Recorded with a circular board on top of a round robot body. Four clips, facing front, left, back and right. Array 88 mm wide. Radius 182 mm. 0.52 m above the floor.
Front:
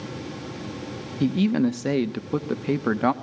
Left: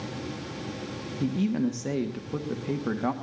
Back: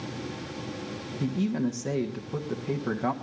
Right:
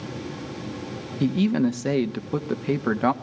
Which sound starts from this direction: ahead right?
A man speaking, at 1.2 s.